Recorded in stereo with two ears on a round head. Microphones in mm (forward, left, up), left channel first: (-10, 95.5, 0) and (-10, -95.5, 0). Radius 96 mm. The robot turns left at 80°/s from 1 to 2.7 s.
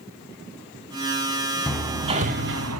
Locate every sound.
1.7 s hammering: 5° left (ahead or behind), 1.1 m; by 2.8 s 75° right (ahead or behind), 1.1 m